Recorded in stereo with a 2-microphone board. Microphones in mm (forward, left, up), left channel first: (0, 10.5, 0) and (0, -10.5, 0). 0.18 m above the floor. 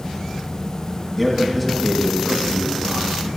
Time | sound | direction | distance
1.2 | a man speaking | 5° right (ahead or behind) | 1.3 m